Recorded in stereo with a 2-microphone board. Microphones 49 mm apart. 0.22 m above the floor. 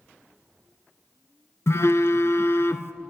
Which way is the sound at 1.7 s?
65° left (ahead or behind).